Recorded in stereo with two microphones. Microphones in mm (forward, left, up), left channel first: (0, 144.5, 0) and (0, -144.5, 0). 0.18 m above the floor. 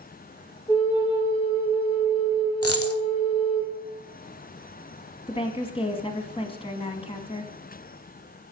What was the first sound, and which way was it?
A flute, 15° left (ahead or behind).